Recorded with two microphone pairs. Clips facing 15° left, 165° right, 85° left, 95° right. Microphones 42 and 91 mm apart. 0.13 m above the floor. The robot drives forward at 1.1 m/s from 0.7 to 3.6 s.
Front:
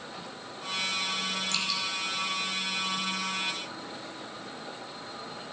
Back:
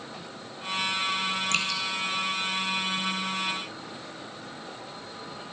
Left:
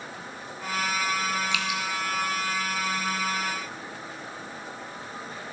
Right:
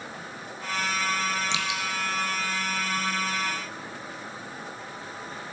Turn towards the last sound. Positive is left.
turn(degrees=-170)